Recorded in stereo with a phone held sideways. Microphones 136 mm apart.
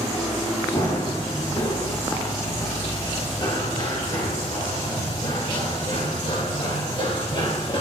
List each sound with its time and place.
0.7 s running footsteps: 35° left (ahead or behind), 8.5 m; by 7.8 s 40° left (ahead or behind), 12 m